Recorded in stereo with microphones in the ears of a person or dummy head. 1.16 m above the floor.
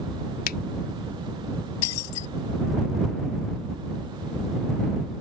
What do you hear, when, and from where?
0.5 s a finger snap: 55° left (ahead or behind)
1.8 s breaking glass: 80° left